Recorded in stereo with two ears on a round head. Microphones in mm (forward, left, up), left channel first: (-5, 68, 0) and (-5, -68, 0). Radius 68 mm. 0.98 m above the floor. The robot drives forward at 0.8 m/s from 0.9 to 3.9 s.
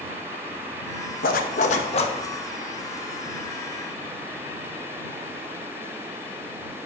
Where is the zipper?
60° left (ahead or behind), 0.8 m; by 2.1 s 40° left (ahead or behind), 1.2 m.